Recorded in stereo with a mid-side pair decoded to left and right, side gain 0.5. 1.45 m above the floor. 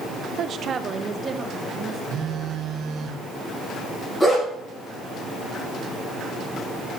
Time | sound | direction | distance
0.4 | a woman speaking | 60° right | 0.8 m
2.1 | a phone buzzing | 55° right | 1.4 m
4.2 | a dog barking | straight ahead | 6 m